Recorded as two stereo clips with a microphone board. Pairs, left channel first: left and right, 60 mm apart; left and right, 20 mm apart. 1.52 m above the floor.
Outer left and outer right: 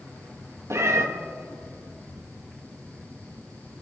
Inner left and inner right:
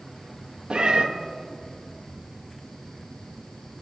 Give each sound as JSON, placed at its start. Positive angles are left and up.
{"t": 0.7, "sound": "a cat meowing", "side_deg": -50, "distance_m": 1.1}